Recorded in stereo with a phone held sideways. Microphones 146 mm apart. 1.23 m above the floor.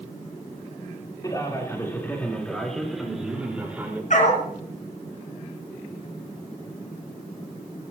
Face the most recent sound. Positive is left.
turn(degrees=60)  # may be behind; listen again after turning